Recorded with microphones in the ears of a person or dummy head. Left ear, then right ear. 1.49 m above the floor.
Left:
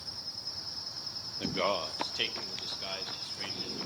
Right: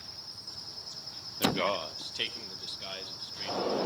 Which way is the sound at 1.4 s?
20° right (ahead or behind).